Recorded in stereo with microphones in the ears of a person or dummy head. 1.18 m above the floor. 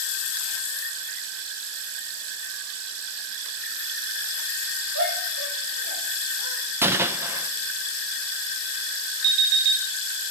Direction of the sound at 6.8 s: 15° right (ahead or behind).